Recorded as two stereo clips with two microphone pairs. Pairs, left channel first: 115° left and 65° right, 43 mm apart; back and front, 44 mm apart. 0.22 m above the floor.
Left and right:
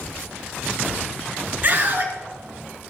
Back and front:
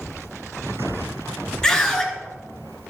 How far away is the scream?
About 3 m.